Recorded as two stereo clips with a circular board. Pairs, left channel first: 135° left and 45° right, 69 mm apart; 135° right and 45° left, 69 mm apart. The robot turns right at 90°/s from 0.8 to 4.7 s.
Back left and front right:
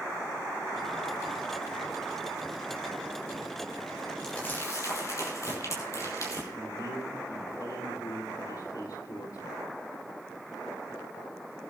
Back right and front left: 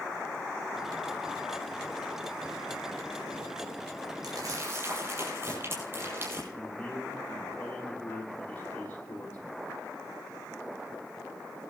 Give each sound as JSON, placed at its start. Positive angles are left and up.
{"t": 4.2, "sound": "crumpling", "azimuth_deg": 55, "distance_m": 7.5}
{"t": 6.5, "sound": "a man speaking", "azimuth_deg": 155, "distance_m": 7.0}